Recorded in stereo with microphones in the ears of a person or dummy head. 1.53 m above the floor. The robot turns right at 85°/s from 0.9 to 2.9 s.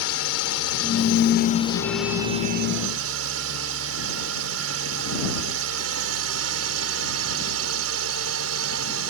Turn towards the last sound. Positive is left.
turn(degrees=-105)